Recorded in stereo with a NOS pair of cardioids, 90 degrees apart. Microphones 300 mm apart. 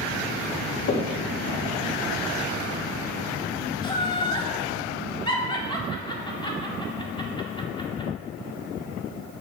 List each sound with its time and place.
0.9 s knocking: 50° left, 2.5 m
3.8 s laughter: 15° left, 3.5 m